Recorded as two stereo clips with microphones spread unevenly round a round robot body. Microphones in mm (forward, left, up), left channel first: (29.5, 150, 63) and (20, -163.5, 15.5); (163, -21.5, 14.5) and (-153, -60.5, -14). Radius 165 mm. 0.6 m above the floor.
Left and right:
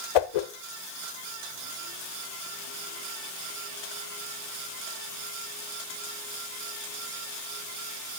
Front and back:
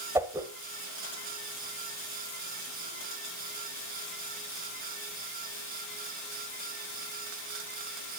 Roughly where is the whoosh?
Left.